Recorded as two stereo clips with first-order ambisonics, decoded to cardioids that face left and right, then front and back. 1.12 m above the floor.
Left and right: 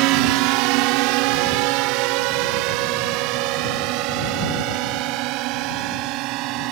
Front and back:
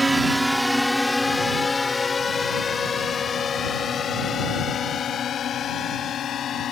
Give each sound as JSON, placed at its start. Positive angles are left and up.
{"t": 0.0, "sound": "a drone", "azimuth_deg": -100}